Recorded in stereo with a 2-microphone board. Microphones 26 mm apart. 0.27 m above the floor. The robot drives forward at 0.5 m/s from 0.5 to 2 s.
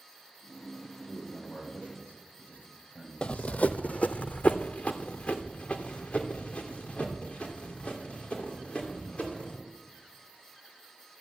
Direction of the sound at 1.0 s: 65° left (ahead or behind).